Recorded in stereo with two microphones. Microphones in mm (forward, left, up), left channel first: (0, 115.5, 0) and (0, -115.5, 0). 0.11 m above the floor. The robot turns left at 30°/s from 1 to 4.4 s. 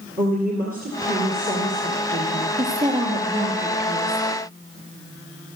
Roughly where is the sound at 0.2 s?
Ahead right.